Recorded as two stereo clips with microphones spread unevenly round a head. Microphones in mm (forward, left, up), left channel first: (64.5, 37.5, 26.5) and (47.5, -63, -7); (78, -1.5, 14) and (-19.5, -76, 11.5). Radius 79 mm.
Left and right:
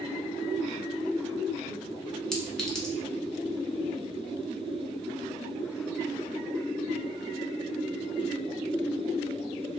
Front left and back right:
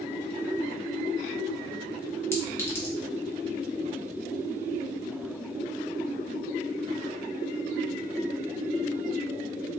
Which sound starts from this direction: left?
A clink, at 2.3 s.